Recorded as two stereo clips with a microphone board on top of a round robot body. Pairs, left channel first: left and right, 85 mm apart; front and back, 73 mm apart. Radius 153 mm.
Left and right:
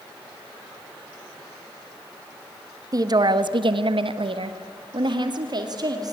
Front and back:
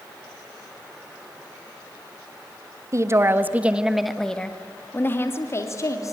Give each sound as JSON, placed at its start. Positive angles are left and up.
{"t": 2.9, "sound": "a woman speaking", "azimuth_deg": -135, "distance_m": 1.6}